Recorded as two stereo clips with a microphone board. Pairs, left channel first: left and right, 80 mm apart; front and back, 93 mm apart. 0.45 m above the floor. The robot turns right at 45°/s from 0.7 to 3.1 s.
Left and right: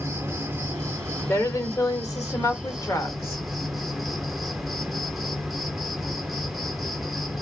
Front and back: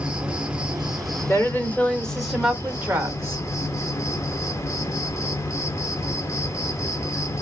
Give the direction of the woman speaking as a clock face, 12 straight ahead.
10 o'clock.